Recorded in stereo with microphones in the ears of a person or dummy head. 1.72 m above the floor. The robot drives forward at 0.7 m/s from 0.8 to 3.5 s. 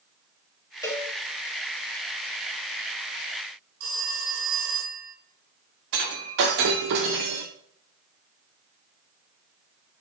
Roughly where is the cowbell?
Centre.